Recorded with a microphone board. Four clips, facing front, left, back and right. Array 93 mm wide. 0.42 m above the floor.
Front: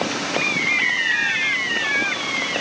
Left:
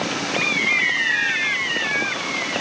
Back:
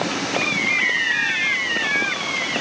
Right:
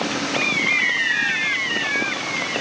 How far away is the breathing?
I don't hear breathing.